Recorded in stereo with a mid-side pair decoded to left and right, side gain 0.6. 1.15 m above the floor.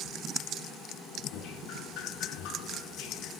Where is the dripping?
70° left, 8 m.